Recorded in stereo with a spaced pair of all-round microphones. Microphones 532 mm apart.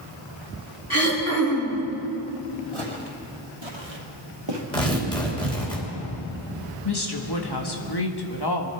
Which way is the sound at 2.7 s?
65° right (ahead or behind).